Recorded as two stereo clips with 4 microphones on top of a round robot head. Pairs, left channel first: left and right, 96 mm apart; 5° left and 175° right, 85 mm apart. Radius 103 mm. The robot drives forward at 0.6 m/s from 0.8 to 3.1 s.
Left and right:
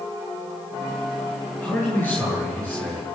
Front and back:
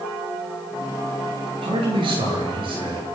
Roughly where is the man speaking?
Behind.